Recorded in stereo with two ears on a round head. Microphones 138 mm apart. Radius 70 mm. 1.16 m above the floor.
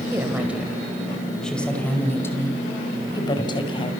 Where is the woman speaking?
15° right (ahead or behind), 5.5 m; by 3.9 s 35° left (ahead or behind), 6.5 m.